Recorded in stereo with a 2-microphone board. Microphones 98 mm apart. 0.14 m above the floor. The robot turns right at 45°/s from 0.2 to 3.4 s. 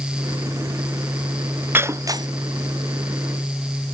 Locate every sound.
1.7 s breaking glass: 20° right (ahead or behind); by 2.3 s 45° right (ahead or behind)